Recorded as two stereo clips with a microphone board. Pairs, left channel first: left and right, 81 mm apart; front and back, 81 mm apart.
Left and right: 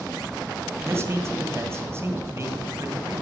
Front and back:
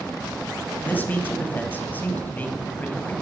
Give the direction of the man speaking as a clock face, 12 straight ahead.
2 o'clock.